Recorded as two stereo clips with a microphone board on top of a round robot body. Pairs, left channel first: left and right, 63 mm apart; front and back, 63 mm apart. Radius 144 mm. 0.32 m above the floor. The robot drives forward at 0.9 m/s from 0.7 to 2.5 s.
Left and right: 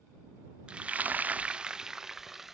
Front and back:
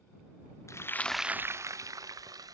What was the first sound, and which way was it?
Frying, 20° right.